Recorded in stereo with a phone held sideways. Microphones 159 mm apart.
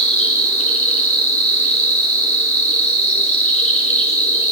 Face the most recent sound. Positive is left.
turn(degrees=45)  # may be behind; listen again after turning